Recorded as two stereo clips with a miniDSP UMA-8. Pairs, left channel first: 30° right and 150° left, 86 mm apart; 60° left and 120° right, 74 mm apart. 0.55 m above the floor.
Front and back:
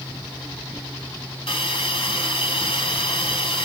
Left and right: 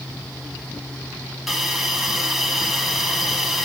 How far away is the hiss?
About 2 m.